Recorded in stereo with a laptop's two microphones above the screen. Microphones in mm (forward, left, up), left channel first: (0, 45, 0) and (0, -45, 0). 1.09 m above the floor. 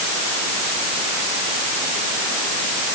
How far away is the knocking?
No knocking in this recording.